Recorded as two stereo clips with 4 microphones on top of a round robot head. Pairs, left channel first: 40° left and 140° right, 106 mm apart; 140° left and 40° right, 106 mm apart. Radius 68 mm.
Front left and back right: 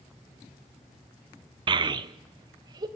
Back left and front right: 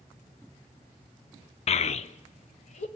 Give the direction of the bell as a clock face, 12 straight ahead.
I don't hear a bell.